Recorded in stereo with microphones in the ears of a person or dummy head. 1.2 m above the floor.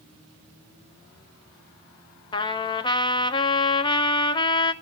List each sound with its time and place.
2.3 s a trumpet: 25° left (ahead or behind), 0.7 m